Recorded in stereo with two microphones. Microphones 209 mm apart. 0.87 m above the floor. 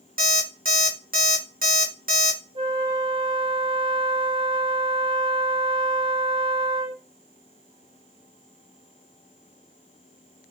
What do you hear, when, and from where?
0.2 s an alarm clock: 45° right (ahead or behind), 0.7 m
2.5 s a flute: 25° right (ahead or behind), 0.8 m